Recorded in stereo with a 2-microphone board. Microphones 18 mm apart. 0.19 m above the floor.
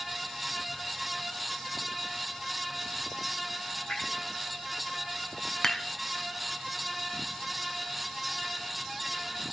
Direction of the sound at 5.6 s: 30° left (ahead or behind).